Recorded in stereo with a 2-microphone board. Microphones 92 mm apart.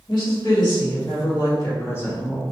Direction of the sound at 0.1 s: 60° left (ahead or behind).